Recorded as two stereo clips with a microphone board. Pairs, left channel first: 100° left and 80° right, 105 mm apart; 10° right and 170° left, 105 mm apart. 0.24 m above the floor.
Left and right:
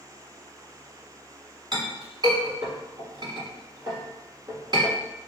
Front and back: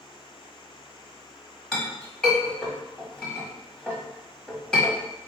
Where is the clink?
95° right, 1.3 m.